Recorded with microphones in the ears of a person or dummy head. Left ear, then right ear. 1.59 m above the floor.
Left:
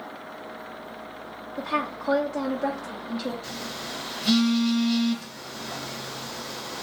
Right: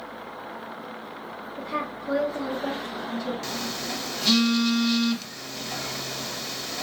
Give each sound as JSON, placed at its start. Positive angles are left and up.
{"t": 1.6, "sound": "a woman speaking", "side_deg": 55, "distance_m": 0.6}
{"t": 3.4, "sound": "a phone buzzing", "side_deg": -50, "distance_m": 0.7}